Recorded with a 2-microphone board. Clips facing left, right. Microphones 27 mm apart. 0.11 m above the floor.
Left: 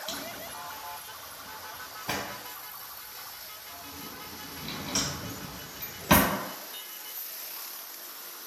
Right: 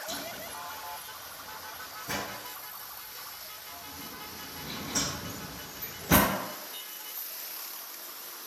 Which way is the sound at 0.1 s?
60° left (ahead or behind).